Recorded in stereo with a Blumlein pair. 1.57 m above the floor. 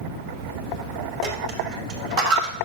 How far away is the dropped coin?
About 4.5 m.